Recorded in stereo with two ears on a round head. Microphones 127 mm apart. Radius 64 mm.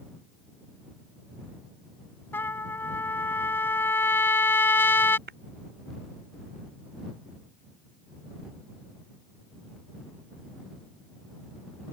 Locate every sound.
2.3 s a trumpet: 15° left (ahead or behind)
5.3 s tapping: 70° right (ahead or behind)